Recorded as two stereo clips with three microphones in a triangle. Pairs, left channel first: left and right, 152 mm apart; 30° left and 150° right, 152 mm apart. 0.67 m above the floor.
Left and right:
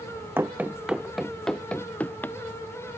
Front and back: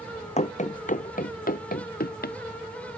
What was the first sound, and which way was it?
Running footsteps, 15° right.